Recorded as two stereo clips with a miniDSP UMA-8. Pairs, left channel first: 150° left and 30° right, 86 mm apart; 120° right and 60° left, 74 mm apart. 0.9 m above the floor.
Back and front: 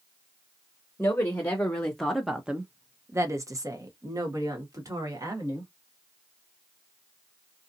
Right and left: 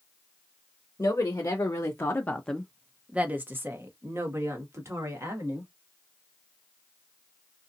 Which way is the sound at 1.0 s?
150° right.